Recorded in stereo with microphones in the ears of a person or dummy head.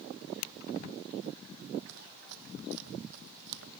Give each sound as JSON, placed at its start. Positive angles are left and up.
{"t": 1.9, "sound": "running footsteps", "side_deg": -70}